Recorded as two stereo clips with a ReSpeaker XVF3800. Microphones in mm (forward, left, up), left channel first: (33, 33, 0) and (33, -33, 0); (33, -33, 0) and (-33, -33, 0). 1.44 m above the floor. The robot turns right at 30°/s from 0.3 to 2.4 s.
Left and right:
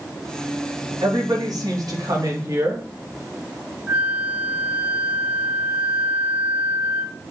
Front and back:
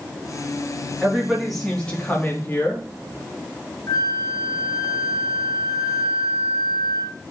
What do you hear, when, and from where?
1.0 s a woman speaking: 100° right, 3.5 m; by 2.9 s 60° right, 3.5 m
3.9 s a flute: 25° right, 0.9 m